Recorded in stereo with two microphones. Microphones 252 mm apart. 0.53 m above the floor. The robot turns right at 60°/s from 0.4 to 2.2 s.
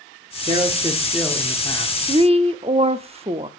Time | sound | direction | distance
0.5 | a man speaking | 45° right | 1.5 m
2.1 | a woman speaking | 20° right (ahead or behind) | 0.7 m